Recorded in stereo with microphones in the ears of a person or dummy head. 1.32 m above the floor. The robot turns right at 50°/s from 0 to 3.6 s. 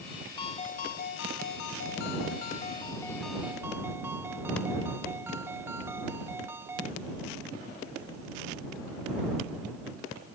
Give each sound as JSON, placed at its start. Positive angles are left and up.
{"t": 0.4, "sound": "a ringtone", "azimuth_deg": 35}